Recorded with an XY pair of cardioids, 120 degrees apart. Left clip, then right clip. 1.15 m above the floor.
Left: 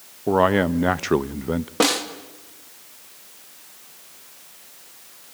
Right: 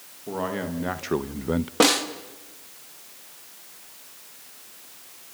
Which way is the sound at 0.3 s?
65° left.